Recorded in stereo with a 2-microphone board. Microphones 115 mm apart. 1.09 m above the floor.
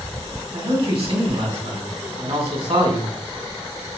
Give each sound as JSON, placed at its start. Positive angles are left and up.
{"t": 0.5, "sound": "a man speaking", "side_deg": -55, "distance_m": 3.0}